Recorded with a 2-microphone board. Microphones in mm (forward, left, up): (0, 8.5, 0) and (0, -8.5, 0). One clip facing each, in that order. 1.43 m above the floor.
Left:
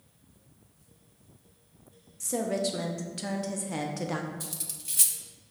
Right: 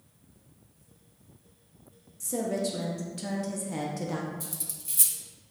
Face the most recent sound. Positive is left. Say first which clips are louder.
# left 1 dB
turn(degrees=25)  # may be behind; listen again after turning